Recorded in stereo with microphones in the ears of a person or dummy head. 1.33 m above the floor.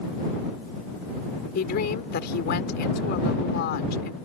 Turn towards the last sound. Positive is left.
turn(degrees=50)  # may be behind; listen again after turning